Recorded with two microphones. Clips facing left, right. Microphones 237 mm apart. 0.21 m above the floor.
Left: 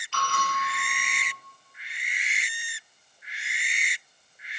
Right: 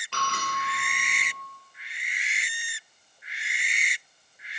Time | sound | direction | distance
0.1 | a bell | 65° right (ahead or behind) | 3 m